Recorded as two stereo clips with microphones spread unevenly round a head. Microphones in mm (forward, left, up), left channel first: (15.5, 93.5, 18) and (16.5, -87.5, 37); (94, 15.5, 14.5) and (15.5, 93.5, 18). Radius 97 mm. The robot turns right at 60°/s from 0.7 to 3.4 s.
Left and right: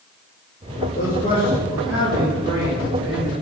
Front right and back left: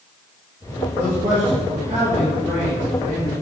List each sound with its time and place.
0.9 s a man speaking: 130° left, 2.5 m; by 3.3 s 85° right, 2.5 m